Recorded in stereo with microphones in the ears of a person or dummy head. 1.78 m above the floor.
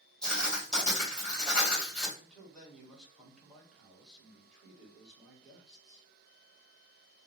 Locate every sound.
0.2 s writing: 5° left (ahead or behind), 2 m
2.2 s a man speaking: centre (ahead or behind), 2 m